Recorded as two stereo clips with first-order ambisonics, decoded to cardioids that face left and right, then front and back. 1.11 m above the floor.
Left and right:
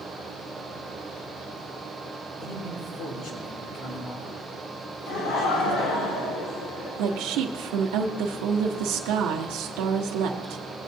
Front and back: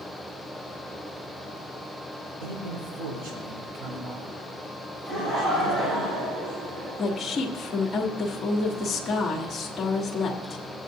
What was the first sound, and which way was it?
A man speaking, 150° left.